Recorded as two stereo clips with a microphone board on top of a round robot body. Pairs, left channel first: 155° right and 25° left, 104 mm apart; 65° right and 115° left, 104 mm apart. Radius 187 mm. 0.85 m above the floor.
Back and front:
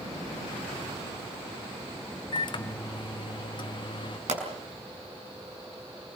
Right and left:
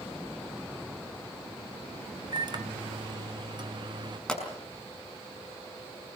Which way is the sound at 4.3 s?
15° left.